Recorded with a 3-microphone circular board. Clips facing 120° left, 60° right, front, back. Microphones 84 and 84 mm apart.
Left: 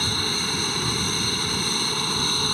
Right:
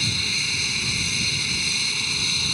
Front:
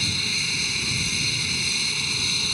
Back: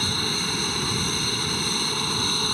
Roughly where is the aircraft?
Behind left.